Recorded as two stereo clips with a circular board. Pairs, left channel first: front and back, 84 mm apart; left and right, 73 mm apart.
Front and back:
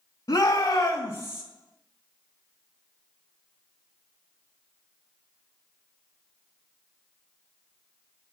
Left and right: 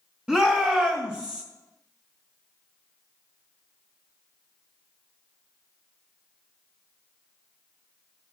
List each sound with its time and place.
0.3 s a shout: 20° right, 1.9 m